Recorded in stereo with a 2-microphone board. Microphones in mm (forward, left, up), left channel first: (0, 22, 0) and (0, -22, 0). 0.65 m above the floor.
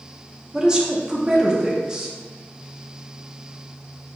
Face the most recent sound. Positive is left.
turn(degrees=-15)  # may be behind; listen again after turning